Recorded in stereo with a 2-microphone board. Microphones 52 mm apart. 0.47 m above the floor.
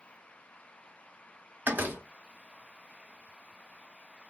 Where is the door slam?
40° right (ahead or behind), 0.7 m.